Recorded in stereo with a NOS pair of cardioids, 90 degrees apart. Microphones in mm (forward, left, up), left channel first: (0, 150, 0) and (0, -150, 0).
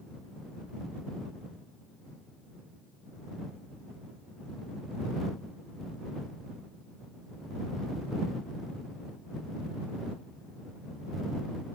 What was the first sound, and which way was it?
Only background noise.